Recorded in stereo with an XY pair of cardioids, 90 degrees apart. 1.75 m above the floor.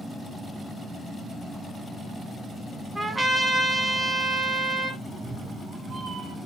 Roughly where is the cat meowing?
Ahead right.